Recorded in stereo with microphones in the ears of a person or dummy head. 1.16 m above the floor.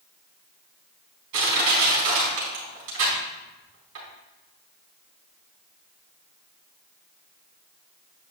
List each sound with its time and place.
1.3 s crushing: 70° right (ahead or behind), 4 m